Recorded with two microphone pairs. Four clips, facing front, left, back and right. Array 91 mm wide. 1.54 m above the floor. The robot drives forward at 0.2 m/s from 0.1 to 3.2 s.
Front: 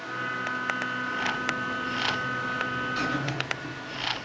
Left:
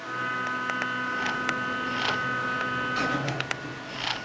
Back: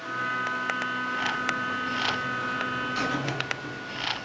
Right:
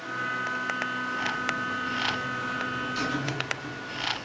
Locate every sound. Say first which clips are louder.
1.2 s a buzzer: left 1 dB, back 1 dB; 105° left, 0.6 m; by 4.3 s 135° left, 0.8 m